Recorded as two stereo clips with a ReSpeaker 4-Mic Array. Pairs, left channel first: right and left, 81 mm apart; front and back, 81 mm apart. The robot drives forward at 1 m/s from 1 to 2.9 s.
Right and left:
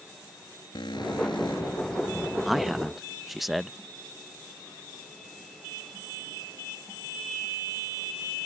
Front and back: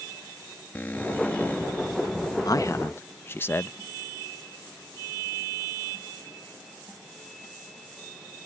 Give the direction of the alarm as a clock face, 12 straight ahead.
2 o'clock.